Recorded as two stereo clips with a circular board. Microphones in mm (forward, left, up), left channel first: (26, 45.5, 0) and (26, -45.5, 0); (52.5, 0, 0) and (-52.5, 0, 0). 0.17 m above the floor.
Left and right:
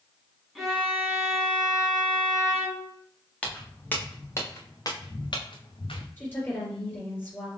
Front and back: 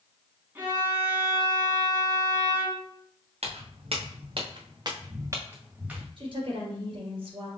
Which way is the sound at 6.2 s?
155° left.